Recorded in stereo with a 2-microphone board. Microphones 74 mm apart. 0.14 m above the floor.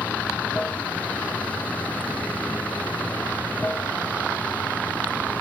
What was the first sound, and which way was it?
Running water, 20° left (ahead or behind).